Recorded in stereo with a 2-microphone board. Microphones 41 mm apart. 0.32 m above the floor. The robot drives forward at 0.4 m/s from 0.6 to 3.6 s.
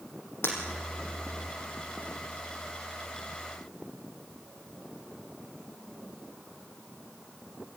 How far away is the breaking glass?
About 6 m.